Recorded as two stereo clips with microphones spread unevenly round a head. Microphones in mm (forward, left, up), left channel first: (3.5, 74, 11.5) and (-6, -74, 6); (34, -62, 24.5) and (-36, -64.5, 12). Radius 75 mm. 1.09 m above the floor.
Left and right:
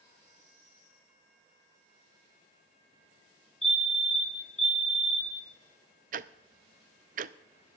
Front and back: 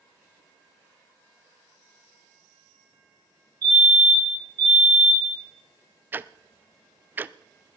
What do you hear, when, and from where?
3.6 s a fire alarm: 175° left, 6 m
6.1 s ticking: 115° right, 0.5 m